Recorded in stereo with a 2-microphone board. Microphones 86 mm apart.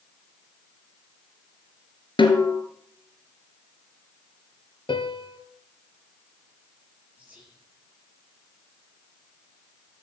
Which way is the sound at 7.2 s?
15° right (ahead or behind).